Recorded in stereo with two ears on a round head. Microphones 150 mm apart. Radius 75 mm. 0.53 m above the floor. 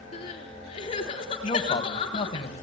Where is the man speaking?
30° left (ahead or behind), 3.5 m.